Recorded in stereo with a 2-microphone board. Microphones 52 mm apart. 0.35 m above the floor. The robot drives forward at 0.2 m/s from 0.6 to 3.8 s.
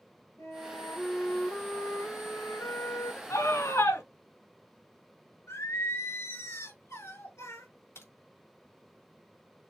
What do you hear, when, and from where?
0.4 s a flute: 80° left, 3.5 m
3.3 s a scream: 70° left (ahead or behind), 3.5 m
5.5 s singing: 70° left (ahead or behind), 4.5 m
8.0 s a crack: 65° left (ahead or behind), 4 m